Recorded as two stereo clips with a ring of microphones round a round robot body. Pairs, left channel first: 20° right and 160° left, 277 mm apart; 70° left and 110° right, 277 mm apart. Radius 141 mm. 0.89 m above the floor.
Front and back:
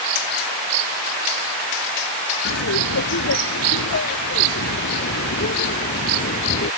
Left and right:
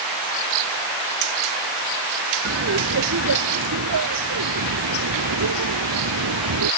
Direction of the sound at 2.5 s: 70° right.